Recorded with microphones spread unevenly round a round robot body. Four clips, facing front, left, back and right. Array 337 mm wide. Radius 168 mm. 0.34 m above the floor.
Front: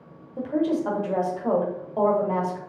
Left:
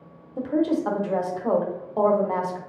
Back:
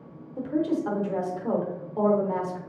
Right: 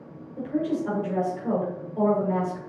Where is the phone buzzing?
No phone buzzing in this recording.